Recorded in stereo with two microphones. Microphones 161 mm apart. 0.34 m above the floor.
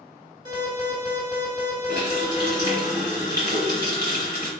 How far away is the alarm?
About 2.5 m.